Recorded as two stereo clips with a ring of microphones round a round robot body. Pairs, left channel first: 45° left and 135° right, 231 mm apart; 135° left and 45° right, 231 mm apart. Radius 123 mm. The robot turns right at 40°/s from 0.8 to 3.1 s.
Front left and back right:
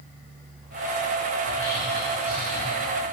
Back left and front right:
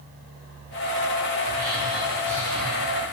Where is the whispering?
20° left, 1.2 m; by 3.1 s 85° left, 1.2 m.